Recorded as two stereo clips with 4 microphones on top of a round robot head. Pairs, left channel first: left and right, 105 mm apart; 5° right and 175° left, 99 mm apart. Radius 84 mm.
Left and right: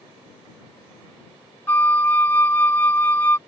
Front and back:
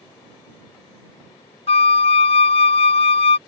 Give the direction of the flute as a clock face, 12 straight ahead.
12 o'clock.